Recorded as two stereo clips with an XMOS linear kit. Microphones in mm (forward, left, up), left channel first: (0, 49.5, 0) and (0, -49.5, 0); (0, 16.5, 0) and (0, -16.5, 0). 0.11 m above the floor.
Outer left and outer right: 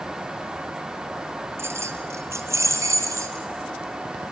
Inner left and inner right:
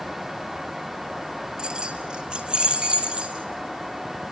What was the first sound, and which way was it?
Keys jangling, 25° right (ahead or behind).